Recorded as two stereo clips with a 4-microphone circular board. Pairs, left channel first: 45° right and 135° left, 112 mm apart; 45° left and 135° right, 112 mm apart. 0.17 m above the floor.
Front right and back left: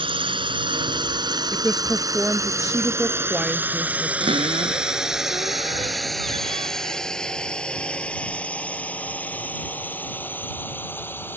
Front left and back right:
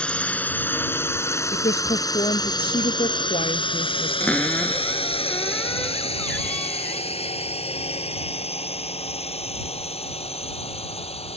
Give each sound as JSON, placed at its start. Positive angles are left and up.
{"t": 0.0, "sound": "a drone", "azimuth_deg": 125}
{"t": 1.5, "sound": "a woman speaking", "azimuth_deg": 50}
{"t": 4.2, "sound": "a cupboard door", "azimuth_deg": 120}